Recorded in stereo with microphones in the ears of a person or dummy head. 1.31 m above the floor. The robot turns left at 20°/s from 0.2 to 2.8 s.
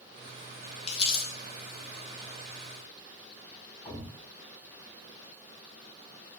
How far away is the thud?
About 2.5 m.